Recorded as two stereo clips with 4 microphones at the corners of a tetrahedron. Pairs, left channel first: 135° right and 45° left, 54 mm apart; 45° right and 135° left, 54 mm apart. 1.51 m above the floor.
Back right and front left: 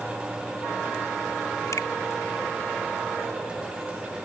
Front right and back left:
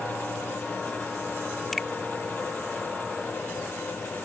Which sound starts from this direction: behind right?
A finger snap, at 1.7 s.